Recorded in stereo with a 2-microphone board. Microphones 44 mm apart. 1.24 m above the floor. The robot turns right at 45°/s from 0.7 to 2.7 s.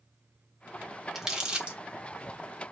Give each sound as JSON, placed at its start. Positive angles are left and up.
{"t": 1.1, "sound": "crumpling", "side_deg": -5, "distance_m": 1.4}